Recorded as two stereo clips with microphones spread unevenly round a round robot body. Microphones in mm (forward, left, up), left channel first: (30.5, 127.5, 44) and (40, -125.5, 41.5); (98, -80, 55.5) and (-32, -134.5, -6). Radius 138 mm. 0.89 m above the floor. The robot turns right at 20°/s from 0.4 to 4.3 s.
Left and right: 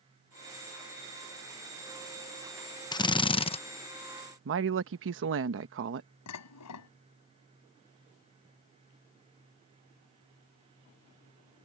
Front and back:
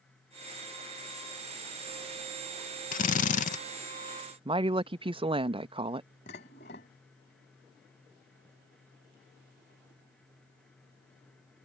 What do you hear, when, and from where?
2.9 s a drill: 35° left; by 3.6 s 50° left
4.5 s a woman speaking: 125° right
6.3 s dishes clattering: 70° left